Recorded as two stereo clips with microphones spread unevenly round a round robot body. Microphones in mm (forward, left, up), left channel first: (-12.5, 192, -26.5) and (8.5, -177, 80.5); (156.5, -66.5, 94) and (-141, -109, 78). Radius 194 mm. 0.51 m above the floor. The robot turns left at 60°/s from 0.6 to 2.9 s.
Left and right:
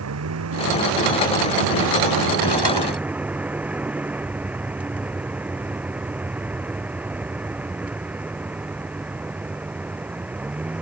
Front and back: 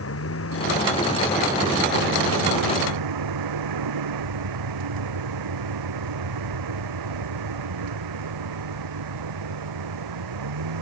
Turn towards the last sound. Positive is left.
turn(degrees=-170)